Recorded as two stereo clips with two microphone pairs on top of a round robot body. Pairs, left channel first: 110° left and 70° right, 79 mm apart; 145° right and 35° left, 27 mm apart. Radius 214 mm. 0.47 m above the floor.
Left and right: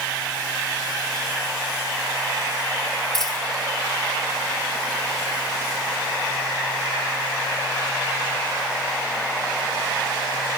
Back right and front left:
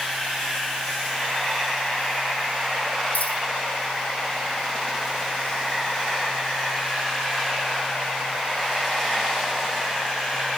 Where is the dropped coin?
165° right, 3.5 m.